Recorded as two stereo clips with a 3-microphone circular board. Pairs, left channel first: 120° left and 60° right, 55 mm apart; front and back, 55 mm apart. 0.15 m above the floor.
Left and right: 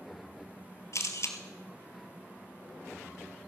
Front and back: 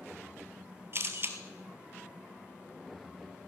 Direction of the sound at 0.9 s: 145° left.